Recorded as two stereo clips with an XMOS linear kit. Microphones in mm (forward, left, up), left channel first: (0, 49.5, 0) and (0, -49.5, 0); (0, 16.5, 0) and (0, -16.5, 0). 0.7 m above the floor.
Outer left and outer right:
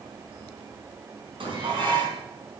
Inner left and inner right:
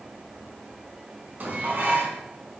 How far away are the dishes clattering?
About 4.5 m.